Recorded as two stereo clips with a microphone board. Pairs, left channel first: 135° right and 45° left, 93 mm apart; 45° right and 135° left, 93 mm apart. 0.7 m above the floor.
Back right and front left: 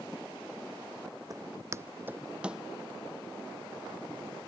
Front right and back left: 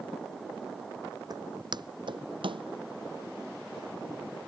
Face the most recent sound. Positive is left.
turn(degrees=130)